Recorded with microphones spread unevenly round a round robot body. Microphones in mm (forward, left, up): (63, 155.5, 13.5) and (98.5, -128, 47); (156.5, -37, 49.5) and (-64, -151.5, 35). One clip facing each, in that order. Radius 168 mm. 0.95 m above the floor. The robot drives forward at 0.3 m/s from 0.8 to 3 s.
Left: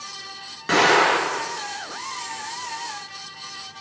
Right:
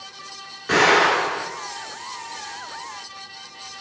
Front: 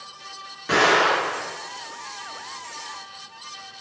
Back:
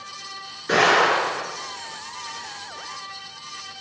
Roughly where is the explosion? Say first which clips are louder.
Even, back 1 dB; left.